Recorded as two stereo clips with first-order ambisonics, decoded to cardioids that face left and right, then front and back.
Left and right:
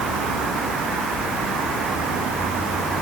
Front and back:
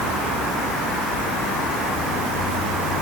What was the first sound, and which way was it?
Only background noise.